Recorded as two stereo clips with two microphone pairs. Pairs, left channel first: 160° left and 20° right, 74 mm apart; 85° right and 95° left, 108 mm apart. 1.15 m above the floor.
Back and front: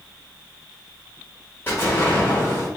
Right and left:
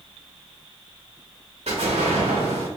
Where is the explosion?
100° left, 1.8 m.